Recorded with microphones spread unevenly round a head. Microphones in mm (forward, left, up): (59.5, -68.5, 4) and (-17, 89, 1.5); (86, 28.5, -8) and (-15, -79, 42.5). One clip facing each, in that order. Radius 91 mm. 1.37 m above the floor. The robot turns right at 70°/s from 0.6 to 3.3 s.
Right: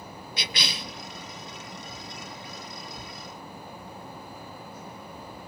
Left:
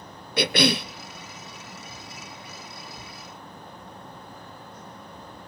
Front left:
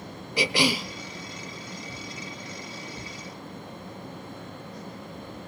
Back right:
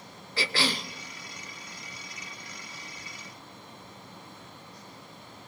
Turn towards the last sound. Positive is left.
turn(degrees=-70)